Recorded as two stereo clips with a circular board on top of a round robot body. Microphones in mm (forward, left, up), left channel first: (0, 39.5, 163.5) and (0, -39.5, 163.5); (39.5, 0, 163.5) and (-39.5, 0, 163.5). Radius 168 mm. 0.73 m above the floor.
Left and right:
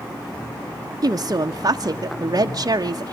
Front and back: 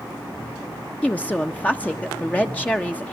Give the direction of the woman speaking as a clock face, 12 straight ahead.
2 o'clock.